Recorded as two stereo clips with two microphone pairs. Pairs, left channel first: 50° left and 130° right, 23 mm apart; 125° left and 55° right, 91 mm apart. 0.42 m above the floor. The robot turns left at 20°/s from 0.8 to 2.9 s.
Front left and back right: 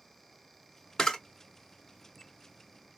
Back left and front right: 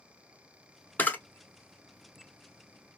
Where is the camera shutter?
80° left, 0.8 m; by 1.2 s 75° left, 0.8 m.